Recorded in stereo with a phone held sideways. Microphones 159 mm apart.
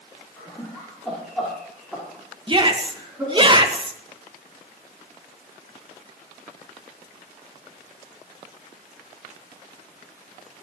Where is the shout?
30° right (ahead or behind), 1.5 m.